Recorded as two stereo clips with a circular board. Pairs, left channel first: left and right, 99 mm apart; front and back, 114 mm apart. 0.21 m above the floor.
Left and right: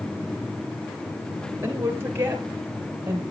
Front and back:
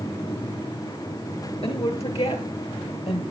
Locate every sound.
1.6 s a woman speaking: 30° right, 3.5 m; by 3.2 s 20° right, 5 m